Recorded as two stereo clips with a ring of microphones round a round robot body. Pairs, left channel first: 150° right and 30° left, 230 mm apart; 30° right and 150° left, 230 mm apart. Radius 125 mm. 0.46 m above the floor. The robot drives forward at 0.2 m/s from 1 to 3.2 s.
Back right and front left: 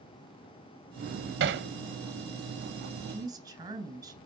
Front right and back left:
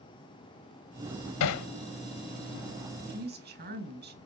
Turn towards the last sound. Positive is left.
turn(degrees=105)